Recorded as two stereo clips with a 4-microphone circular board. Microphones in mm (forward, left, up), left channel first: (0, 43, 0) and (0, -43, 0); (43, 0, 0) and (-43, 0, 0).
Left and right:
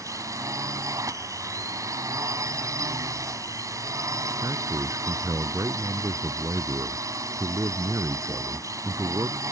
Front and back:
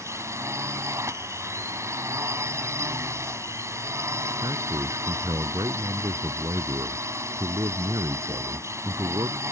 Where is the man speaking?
145° right.